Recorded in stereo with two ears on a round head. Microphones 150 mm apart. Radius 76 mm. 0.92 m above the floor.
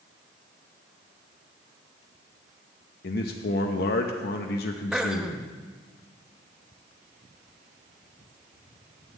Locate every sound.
3.0 s a man speaking: 60° left (ahead or behind), 0.8 m
4.9 s throat clearing: 5° right (ahead or behind), 0.8 m